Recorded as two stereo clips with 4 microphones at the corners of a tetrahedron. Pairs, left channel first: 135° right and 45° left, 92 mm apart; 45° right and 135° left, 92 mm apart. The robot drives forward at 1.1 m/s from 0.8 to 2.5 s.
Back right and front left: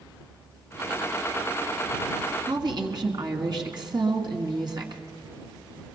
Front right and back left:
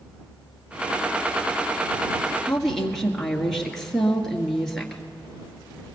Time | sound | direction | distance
2.5 | a woman speaking | 35° left | 1.9 m